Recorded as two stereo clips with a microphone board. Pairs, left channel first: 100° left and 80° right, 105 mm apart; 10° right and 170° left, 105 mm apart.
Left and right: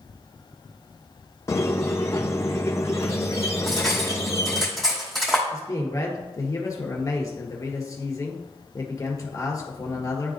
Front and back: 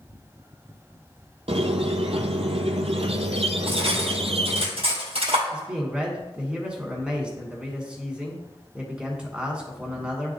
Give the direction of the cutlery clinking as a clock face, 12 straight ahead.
6 o'clock.